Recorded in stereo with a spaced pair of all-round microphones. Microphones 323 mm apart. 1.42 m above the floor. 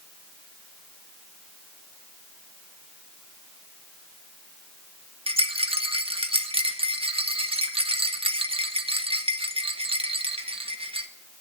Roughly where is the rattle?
Centre.